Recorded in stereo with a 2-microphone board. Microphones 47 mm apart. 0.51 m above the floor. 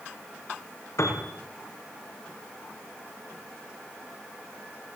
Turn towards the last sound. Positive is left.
turn(degrees=80)